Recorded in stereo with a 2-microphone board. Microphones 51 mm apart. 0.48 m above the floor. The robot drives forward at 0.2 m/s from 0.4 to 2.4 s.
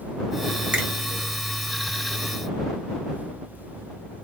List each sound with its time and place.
0.7 s a finger snap: 25° right (ahead or behind), 1.3 m